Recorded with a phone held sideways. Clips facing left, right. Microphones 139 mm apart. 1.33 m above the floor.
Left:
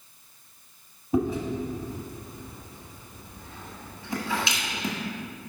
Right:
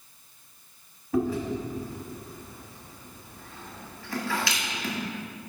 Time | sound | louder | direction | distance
1.1 | chewing | left 1 dB | 20° left (ahead or behind) | 1.4 m